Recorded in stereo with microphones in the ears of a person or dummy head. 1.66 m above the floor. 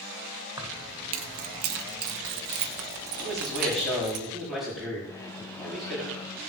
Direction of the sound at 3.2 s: 5° left (ahead or behind).